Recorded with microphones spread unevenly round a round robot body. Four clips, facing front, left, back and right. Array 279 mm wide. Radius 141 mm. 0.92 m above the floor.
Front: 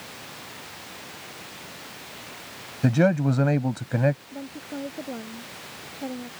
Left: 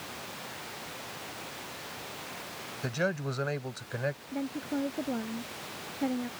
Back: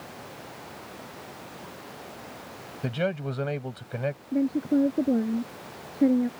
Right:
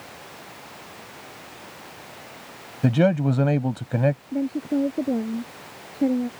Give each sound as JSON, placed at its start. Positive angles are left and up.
{"t": 2.8, "sound": "a man speaking", "azimuth_deg": -55}
{"t": 4.3, "sound": "a woman speaking", "azimuth_deg": -145}